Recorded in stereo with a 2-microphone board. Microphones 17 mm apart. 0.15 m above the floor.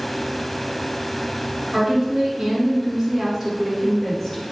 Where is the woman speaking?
30° right (ahead or behind), 1.8 m; by 4.4 s centre (ahead or behind), 1.5 m.